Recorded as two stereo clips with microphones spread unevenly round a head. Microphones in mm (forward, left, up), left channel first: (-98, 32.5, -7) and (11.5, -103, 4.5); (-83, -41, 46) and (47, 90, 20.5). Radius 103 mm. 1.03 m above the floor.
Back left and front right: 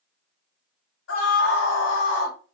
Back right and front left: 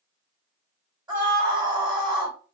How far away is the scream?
About 1.2 m.